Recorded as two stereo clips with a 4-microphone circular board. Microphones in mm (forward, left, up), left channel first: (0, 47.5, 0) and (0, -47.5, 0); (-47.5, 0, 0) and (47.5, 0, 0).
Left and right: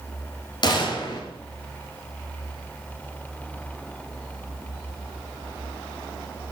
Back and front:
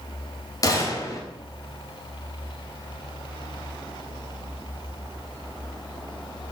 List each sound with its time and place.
0.6 s a gunshot: 130° left, 3.5 m